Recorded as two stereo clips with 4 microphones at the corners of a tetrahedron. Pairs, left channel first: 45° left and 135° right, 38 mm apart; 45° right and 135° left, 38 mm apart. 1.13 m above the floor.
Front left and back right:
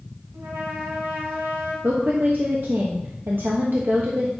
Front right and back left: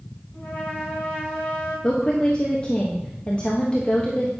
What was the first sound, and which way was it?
A trumpet, 115° right.